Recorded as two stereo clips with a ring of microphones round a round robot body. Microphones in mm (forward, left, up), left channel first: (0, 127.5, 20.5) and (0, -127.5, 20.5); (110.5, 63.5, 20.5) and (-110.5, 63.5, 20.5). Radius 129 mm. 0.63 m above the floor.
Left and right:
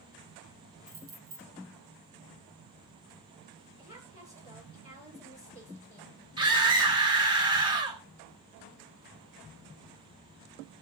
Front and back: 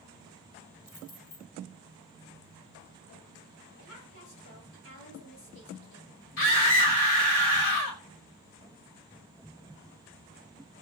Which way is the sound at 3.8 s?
10° right.